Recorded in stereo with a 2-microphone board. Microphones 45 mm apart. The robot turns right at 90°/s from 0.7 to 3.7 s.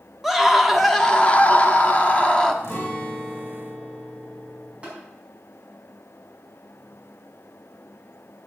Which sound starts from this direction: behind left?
A guitar, at 2.6 s.